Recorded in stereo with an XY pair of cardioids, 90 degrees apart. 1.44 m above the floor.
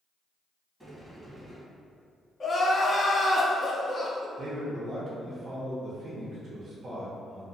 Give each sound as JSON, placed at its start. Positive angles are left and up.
{"t": 0.8, "sound": "a sliding door", "azimuth_deg": -15, "distance_m": 1.2}
{"t": 2.4, "sound": "crying", "azimuth_deg": 35, "distance_m": 0.5}
{"t": 4.4, "sound": "a man speaking", "azimuth_deg": -50, "distance_m": 0.7}